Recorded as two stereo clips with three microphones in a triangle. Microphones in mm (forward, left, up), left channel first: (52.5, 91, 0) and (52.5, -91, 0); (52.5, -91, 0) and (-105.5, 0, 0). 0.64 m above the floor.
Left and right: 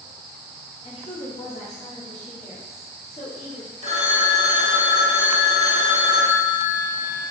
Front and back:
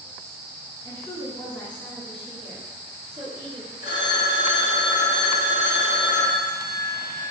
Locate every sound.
0.8 s a woman speaking: 40° left, 1.5 m; by 3.7 s 145° left, 1.1 m
3.8 s a phone ringing: 35° right, 0.8 m